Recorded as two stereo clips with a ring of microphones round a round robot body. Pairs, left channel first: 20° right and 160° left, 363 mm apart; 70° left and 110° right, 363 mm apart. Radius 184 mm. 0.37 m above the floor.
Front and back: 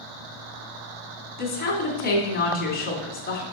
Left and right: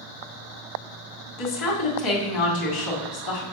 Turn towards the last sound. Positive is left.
turn(degrees=40)